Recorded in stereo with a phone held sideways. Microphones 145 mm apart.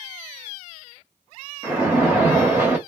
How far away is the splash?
About 1.2 m.